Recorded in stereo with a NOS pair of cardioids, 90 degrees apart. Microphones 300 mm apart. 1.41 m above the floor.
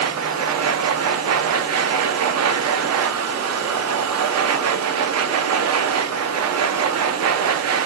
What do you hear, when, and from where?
0.0 s a machine running: 60° right, 0.7 m